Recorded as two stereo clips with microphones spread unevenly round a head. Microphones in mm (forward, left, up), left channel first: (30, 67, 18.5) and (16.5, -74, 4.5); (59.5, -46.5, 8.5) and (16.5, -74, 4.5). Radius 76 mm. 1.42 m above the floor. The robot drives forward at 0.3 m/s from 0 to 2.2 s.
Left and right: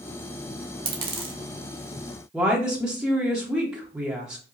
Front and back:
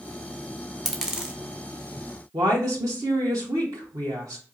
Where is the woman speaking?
Straight behind, 0.9 m.